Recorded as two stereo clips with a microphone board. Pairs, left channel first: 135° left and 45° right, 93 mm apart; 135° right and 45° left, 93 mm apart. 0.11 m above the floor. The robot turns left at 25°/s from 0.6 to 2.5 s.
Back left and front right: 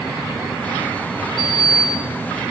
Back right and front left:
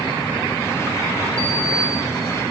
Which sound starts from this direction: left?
A sliding door, at 1.4 s.